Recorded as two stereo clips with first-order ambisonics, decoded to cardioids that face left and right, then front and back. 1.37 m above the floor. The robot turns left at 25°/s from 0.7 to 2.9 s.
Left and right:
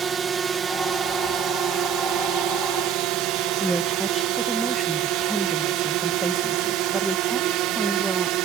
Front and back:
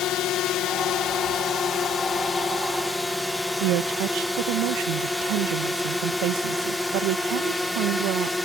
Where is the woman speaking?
175° right.